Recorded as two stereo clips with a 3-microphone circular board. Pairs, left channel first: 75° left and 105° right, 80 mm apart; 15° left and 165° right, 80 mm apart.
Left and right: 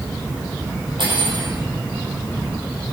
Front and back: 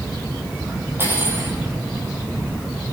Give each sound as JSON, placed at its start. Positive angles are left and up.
{"t": 1.0, "sound": "cutlery clinking", "azimuth_deg": -105, "distance_m": 4.5}